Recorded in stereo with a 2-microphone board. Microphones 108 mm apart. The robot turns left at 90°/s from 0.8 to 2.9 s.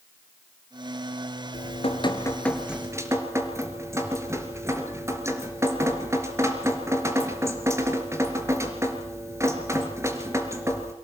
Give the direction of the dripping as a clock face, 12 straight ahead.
9 o'clock.